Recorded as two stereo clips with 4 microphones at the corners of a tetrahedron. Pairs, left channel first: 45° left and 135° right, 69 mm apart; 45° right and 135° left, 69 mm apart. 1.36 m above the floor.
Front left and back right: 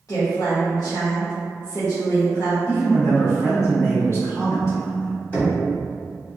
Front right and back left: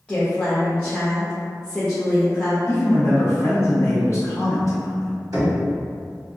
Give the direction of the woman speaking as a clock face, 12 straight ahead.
11 o'clock.